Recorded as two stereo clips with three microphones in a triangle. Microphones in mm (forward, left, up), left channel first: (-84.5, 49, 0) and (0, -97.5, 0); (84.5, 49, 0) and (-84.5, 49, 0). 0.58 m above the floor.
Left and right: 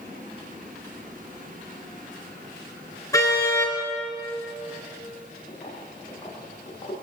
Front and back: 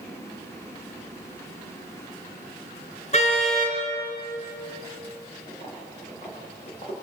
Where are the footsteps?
60° left, 9.5 m.